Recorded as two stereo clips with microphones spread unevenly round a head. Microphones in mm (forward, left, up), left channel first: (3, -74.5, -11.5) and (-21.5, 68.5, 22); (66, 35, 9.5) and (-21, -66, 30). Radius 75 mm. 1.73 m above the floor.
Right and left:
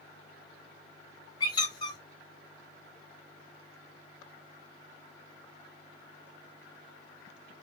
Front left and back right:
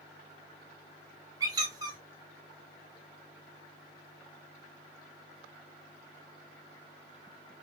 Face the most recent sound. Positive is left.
turn(degrees=-140)